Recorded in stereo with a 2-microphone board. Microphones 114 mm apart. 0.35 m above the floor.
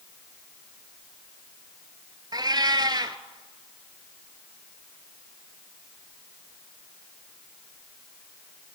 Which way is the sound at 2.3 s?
35° right (ahead or behind).